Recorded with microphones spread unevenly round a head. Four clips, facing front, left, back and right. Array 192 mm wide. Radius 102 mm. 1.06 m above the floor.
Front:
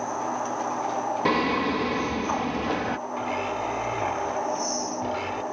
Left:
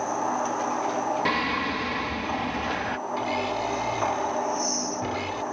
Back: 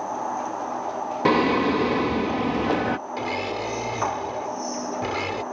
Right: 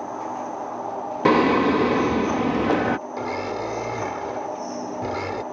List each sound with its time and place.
1.2 s singing: 110° right
3.2 s a blender: 125° right